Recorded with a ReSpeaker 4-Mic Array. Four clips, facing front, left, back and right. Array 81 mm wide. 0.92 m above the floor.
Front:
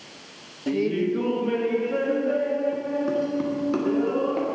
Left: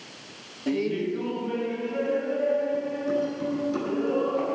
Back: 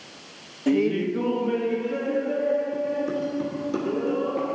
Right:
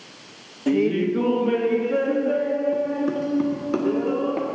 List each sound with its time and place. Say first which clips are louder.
0.7 s laughter: right 6 dB, back 2 dB; 140° right, 0.6 m; by 4.5 s 60° right, 2.5 m